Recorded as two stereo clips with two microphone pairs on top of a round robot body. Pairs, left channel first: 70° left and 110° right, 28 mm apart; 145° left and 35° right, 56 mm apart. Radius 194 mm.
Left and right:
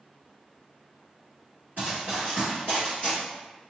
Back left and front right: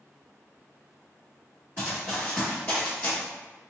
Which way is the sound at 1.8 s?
75° right.